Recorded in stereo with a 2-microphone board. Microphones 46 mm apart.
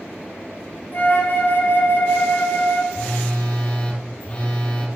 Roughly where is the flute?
Left.